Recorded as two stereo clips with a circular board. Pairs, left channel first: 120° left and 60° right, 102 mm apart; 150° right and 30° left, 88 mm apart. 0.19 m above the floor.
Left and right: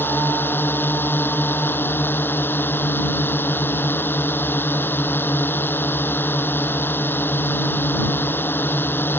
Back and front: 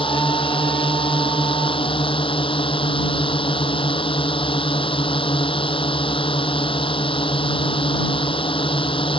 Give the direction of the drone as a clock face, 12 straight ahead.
6 o'clock.